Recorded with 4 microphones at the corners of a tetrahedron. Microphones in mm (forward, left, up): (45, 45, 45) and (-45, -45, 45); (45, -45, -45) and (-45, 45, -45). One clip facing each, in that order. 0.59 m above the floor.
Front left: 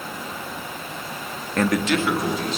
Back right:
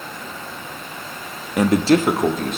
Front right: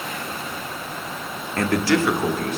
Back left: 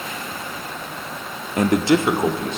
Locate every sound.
1.6 s a man speaking: 165° left, 0.6 m; by 2.6 s 160° right, 1.4 m